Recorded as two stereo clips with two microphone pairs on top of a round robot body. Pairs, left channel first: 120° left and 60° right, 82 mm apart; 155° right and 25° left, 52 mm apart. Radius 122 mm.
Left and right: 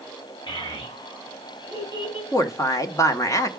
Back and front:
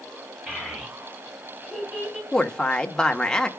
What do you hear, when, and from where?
0.5 s a child speaking: 100° left, 5 m; by 2.2 s 110° left, 5.5 m
2.3 s a woman speaking: 125° left, 1.1 m